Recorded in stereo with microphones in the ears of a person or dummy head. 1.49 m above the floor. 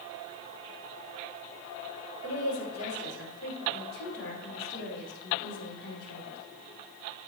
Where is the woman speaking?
80° left, 5.5 m; by 6.4 s 65° left (ahead or behind), 5.5 m.